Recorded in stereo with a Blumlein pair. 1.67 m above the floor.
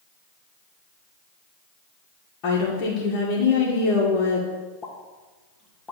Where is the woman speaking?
35° left, 2 m.